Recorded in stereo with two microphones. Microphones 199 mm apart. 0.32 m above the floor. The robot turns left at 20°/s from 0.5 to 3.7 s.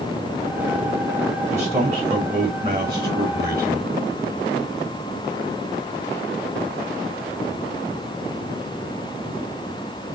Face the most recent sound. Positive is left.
turn(degrees=-150)